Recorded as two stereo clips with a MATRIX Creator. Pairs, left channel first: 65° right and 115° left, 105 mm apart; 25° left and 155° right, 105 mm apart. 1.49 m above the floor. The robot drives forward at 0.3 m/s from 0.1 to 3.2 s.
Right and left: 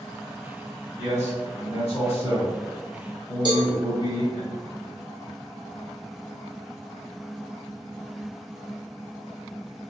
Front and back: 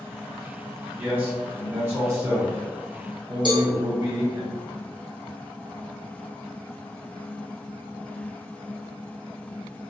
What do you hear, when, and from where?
1.0 s a man speaking: 80° right, 1.8 m; by 4.5 s 105° right, 1.9 m
3.5 s a cowbell: 160° left, 0.9 m